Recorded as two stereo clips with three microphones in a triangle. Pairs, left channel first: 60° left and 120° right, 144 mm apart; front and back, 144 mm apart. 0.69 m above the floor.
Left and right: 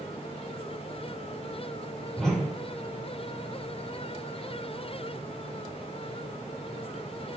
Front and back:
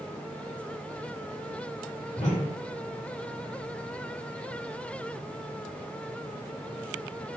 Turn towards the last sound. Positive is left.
turn(degrees=-25)